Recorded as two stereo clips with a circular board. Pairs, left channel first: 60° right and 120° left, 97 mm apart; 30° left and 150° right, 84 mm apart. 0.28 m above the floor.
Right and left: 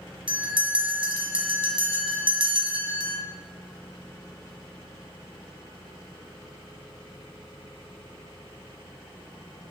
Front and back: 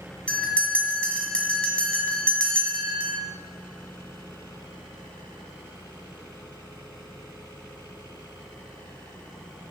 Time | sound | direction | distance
0.3 | a bell | 105° left | 1.7 m